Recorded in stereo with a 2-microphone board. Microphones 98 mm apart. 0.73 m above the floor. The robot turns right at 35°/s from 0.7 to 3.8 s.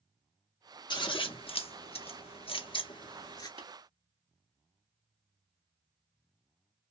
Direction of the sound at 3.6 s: 65° right (ahead or behind).